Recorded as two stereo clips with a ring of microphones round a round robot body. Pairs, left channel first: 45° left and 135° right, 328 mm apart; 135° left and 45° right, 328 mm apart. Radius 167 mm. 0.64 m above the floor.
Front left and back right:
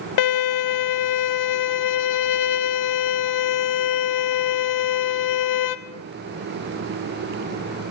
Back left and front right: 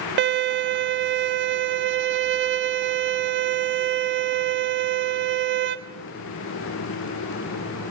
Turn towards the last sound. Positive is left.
turn(degrees=15)